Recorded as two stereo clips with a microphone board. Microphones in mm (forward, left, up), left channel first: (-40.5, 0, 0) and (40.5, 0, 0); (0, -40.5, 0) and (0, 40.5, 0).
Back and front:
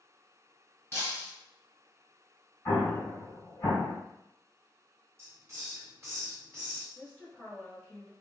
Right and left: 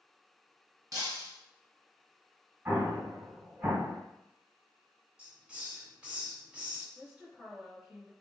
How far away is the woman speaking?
About 1.1 m.